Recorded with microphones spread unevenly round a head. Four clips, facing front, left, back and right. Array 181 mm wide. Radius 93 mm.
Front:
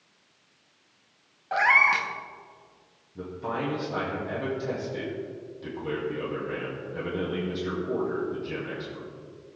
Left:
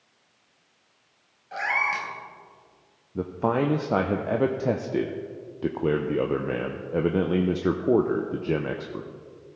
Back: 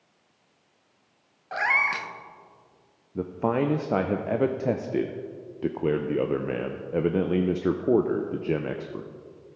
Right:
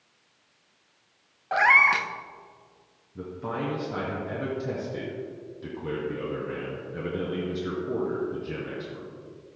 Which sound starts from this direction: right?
A cat meowing, at 1.5 s.